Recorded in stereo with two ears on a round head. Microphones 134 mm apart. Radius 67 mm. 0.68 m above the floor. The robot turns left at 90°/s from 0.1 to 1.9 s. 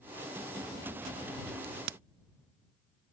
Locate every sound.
1.6 s a crack: 85° right; by 2.0 s 70° right (ahead or behind)